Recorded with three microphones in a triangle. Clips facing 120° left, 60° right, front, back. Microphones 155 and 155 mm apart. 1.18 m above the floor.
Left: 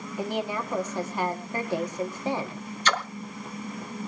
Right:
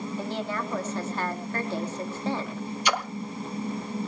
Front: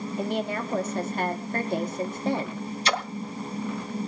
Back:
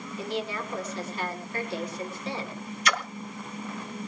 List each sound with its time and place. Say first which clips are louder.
0.2 s a woman speaking: left 4 dB, front 3 dB; 45° left, 2 m
2.9 s a splash: even, front 1 dB; 5° left, 1.0 m